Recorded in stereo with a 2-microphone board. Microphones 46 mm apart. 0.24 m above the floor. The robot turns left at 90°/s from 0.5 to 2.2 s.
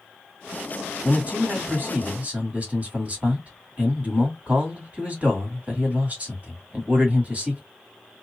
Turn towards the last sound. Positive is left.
turn(degrees=-130)